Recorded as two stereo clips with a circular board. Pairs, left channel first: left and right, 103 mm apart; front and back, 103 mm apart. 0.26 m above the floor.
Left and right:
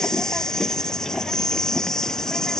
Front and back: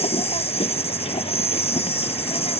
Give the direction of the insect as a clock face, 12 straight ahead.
12 o'clock.